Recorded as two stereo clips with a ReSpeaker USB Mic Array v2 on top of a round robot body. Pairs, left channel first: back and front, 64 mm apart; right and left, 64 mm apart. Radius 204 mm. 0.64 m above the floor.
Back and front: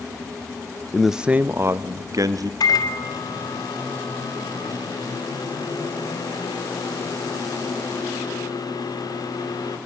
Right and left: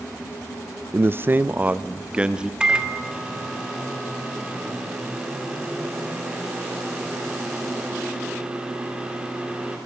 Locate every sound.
0.9 s a man speaking: 100° left, 1.0 m; by 2.5 s 15° left, 1.8 m
2.6 s a microwave: 165° left, 2.5 m